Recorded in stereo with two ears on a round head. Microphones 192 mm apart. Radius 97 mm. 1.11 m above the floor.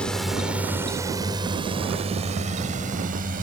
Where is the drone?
5° left (ahead or behind); by 3.4 s 40° right (ahead or behind).